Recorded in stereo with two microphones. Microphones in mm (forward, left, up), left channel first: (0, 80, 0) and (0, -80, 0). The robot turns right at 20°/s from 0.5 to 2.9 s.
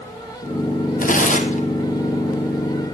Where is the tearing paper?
60° left (ahead or behind), 1.2 m; by 1.7 s 50° left (ahead or behind), 1.2 m.